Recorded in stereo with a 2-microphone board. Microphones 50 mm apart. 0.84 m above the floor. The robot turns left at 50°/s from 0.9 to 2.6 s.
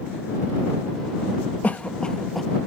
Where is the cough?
30° left (ahead or behind); by 2.5 s centre (ahead or behind).